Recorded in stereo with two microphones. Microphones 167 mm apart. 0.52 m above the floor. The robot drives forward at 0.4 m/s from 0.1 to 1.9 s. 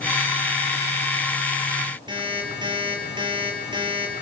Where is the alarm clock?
25° right (ahead or behind), 5.5 m.